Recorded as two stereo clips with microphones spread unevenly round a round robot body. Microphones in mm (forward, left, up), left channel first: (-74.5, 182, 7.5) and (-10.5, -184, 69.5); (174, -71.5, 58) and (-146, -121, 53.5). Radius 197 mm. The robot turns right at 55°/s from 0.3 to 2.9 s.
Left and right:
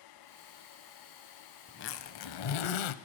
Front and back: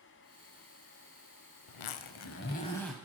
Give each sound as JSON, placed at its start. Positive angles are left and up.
{"t": 1.7, "sound": "a zipper", "azimuth_deg": 30, "distance_m": 0.7}